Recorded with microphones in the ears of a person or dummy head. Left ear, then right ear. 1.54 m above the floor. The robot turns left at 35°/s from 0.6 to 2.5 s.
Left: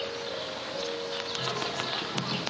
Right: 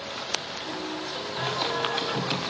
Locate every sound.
1.4 s singing: 65° right, 3 m; by 2.4 s 100° right, 3 m